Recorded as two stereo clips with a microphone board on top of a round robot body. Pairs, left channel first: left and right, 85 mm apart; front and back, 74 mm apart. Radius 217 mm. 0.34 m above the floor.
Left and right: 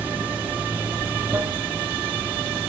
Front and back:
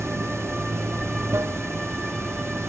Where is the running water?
155° right, 1.0 m.